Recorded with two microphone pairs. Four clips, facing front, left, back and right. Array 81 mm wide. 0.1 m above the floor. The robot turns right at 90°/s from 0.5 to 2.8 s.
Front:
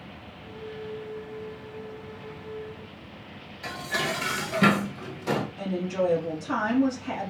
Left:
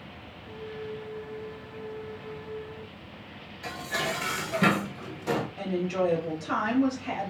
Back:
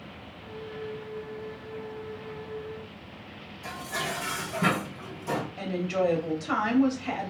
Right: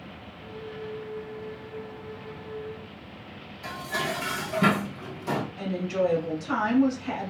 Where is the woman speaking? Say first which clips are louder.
Right 1 dB, even; 160° left, 2 m.